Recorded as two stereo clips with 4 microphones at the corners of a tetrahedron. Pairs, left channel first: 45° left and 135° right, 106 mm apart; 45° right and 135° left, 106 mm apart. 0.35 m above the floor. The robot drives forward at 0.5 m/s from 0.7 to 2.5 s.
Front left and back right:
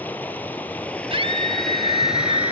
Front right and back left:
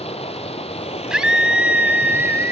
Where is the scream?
140° right, 2 m; by 2.5 s 155° right, 2.5 m.